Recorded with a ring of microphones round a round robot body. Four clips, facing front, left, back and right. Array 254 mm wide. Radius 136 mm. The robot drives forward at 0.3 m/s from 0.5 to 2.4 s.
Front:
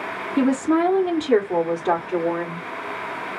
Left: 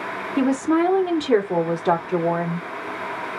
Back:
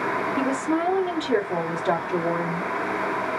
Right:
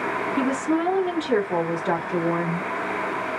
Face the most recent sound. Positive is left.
turn(degrees=75)